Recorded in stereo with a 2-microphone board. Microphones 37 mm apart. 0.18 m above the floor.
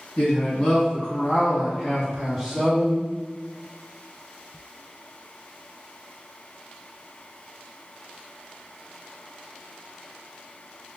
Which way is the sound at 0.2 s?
35° left (ahead or behind).